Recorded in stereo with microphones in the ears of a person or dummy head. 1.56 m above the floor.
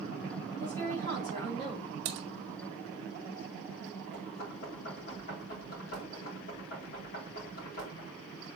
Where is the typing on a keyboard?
40° right (ahead or behind), 1.1 m.